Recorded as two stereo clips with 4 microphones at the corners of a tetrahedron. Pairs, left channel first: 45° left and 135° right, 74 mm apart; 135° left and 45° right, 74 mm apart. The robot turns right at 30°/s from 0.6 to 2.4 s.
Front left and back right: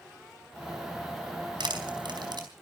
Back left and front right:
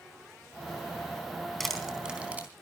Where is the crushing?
140° right, 3.5 m; by 2.5 s 115° right, 3.5 m.